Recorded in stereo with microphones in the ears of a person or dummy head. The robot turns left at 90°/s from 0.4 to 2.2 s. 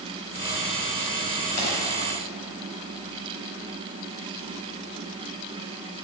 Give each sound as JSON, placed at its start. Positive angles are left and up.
{"t": 1.6, "sound": "a pop", "side_deg": 30, "distance_m": 2.5}